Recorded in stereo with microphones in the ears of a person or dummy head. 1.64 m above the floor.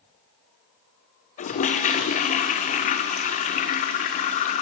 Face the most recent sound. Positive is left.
turn(degrees=35)  # may be behind; listen again after turning